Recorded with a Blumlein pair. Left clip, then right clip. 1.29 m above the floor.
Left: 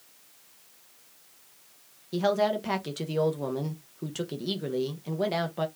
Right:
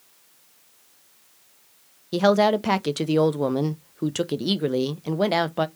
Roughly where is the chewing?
I don't hear chewing.